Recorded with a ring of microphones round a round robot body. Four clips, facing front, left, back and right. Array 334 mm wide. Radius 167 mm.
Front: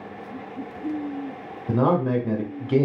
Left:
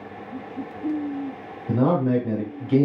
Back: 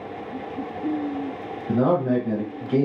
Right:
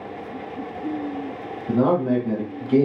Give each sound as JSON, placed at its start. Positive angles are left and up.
{"t": 1.7, "sound": "a man speaking", "azimuth_deg": 5, "distance_m": 1.0}